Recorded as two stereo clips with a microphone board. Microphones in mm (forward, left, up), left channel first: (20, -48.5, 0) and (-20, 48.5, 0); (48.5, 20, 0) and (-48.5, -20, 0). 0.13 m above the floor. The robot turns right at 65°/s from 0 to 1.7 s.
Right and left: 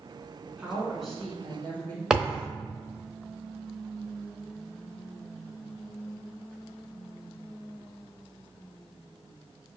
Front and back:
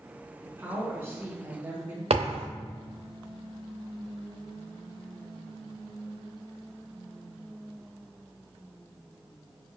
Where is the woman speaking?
165° left, 1.3 m; by 2.0 s 110° right, 1.3 m.